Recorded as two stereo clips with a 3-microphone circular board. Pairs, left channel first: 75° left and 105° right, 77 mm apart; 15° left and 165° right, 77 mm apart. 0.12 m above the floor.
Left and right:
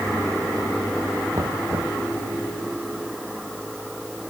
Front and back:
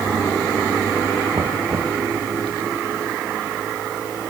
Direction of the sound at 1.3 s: 135° right.